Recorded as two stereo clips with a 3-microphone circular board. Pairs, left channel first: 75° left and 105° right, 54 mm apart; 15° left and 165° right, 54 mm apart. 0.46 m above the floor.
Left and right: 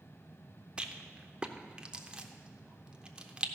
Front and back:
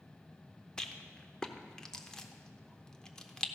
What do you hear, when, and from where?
0.8 s a rattle: 50° right, 0.7 m